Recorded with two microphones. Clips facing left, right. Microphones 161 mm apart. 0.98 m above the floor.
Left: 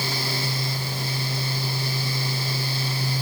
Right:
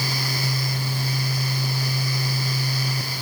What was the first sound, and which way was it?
Only background noise.